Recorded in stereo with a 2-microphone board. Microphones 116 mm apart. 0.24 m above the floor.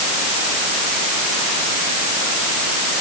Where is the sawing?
No sawing in this recording.